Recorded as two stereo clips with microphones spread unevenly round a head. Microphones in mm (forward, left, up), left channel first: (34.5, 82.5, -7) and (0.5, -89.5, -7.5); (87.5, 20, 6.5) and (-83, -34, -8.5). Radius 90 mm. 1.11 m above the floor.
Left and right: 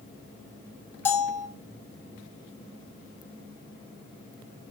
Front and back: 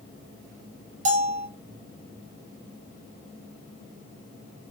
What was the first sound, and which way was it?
A bell, 155° left.